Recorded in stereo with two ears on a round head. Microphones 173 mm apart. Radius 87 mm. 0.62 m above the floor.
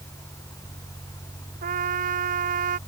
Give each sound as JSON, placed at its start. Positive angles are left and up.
{"t": 1.6, "sound": "a trumpet", "side_deg": -45}